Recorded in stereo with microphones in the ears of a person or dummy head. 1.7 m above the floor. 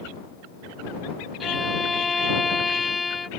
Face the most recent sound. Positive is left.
turn(degrees=5)  # may be behind; listen again after turning